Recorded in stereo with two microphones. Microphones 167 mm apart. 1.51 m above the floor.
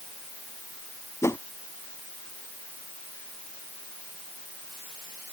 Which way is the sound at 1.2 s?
15° left (ahead or behind).